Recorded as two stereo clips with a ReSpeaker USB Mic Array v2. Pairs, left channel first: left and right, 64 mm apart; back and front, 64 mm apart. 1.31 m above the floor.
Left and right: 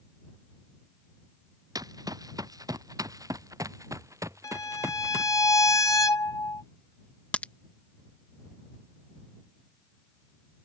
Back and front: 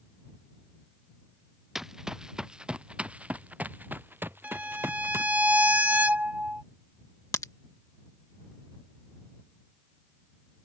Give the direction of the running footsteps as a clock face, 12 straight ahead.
3 o'clock.